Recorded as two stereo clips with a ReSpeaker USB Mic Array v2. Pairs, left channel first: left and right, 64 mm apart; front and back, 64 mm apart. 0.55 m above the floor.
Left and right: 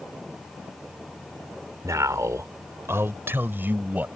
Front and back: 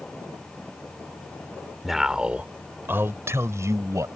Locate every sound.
1.8 s a man speaking: 95° right; by 4.1 s 150° right